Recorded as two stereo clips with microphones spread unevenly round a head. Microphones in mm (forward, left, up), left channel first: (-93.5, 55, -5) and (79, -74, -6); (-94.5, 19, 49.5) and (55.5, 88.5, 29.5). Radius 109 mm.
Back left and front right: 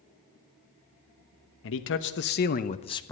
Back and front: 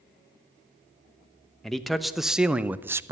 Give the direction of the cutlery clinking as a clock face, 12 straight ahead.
I don't hear cutlery clinking.